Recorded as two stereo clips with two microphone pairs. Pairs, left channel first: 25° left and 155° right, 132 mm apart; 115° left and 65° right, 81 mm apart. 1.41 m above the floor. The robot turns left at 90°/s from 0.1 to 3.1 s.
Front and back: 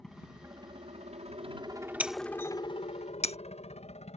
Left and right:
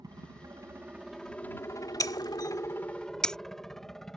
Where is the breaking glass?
130° left; by 3.4 s 30° left.